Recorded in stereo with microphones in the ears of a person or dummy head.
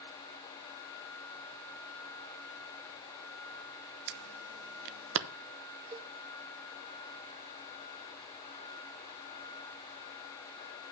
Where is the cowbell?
15° right (ahead or behind), 0.7 m.